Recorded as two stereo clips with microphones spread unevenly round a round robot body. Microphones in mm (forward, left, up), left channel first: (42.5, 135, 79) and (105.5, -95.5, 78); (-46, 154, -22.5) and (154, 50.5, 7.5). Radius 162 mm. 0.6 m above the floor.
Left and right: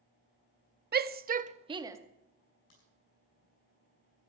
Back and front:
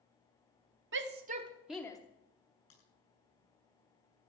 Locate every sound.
0.9 s a shout: 45° right, 0.9 m; by 2.0 s 150° right, 0.9 m
2.7 s a crack: 150° left, 8 m